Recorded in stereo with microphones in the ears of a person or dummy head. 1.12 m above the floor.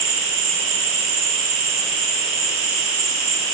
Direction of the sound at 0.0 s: 55° right (ahead or behind).